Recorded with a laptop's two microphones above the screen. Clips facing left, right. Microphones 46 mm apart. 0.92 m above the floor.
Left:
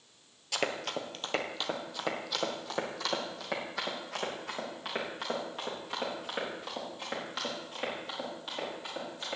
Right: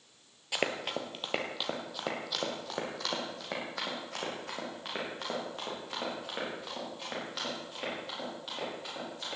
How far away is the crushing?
I don't hear crushing.